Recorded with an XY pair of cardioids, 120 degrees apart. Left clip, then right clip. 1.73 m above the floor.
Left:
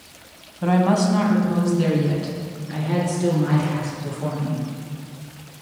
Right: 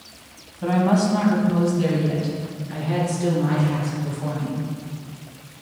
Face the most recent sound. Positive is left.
turn(degrees=20)